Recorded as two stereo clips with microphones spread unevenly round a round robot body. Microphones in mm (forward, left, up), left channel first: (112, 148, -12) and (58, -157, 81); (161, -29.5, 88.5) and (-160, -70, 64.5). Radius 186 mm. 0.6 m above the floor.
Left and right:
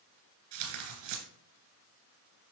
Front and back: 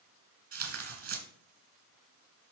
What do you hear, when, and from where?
0.5 s tearing paper: 125° right, 2.5 m